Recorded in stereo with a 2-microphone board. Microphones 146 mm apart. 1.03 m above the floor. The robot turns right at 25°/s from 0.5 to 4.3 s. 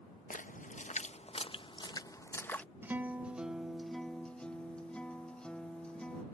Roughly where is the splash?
Left.